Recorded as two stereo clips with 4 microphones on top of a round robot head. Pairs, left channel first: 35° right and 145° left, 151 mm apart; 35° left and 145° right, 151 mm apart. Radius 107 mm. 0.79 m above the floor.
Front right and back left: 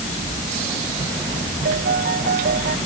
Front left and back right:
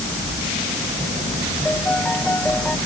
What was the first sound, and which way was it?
A piano, 120° left.